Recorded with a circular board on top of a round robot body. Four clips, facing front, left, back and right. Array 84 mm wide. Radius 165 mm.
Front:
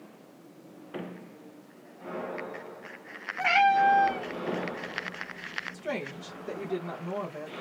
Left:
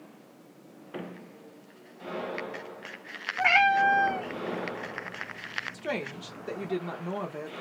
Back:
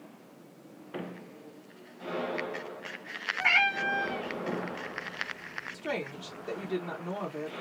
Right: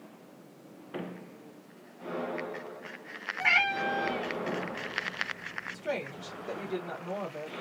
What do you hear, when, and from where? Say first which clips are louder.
3.4 s a cat meowing: left 7 dB, front 7 dB; 75° left, 0.9 m
5.7 s a woman speaking: even, back 1 dB; 100° left, 1.0 m